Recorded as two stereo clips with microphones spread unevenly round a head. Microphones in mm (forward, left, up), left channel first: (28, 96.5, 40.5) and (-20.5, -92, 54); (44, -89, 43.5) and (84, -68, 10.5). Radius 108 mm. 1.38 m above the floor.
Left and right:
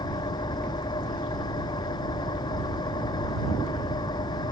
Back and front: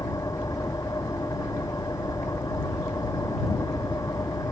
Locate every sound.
0.0 s an engine running: 145° left